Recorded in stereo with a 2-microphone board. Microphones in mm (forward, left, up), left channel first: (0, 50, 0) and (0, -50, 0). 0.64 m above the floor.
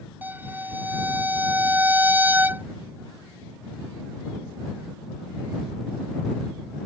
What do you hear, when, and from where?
0.2 s a violin: 20° right (ahead or behind)